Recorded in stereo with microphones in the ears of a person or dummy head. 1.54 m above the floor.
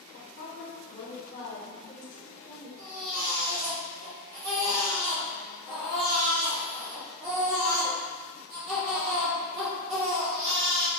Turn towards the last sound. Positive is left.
turn(degrees=-30)  # may be behind; listen again after turning